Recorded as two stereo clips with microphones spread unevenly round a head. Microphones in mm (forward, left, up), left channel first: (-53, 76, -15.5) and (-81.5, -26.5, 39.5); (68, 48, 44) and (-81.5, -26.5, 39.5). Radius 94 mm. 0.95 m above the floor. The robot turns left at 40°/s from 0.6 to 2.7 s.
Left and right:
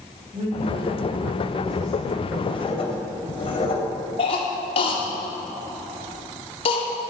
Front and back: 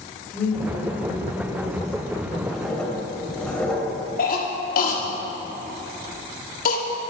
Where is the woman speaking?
55° right, 5 m; by 2.3 s 120° right, 5 m.